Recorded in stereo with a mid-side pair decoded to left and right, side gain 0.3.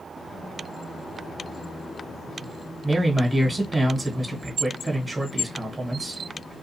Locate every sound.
2.8 s a man speaking: 20° right, 1.2 m